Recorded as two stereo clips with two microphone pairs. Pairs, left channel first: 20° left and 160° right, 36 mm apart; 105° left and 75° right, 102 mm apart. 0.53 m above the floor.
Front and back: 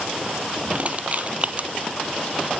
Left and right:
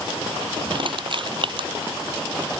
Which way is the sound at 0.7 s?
110° right.